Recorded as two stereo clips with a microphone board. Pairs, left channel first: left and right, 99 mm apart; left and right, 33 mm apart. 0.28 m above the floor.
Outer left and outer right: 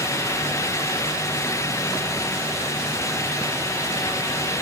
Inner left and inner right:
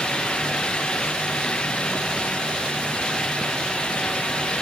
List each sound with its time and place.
Only background noise.